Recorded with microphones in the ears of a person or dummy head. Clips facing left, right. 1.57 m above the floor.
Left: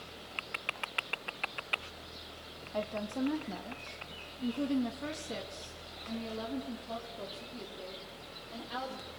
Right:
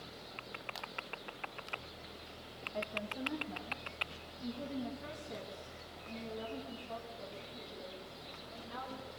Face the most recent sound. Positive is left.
turn(degrees=70)  # may be behind; listen again after turning